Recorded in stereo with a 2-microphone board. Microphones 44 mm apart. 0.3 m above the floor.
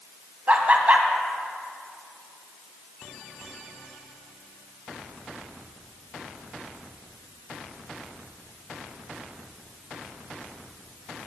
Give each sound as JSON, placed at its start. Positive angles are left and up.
{"t": 0.5, "sound": "laughter", "side_deg": -35, "distance_m": 1.6}